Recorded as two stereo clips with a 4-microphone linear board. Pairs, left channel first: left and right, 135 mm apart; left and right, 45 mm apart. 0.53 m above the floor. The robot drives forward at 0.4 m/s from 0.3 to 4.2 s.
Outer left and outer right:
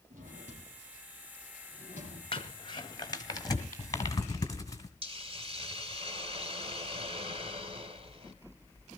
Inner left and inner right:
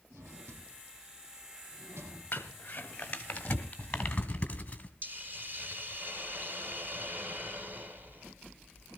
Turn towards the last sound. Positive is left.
turn(degrees=-45)  # may be behind; listen again after turning